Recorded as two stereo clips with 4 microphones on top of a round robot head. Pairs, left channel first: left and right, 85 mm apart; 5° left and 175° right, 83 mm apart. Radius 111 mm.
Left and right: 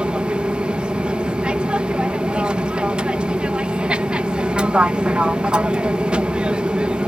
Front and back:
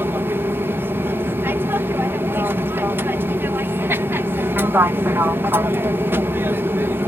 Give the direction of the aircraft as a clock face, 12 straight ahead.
5 o'clock.